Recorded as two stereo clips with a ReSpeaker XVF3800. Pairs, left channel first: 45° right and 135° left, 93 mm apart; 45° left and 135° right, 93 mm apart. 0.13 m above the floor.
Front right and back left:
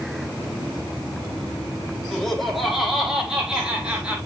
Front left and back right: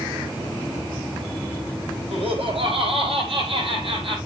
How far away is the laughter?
About 5.5 m.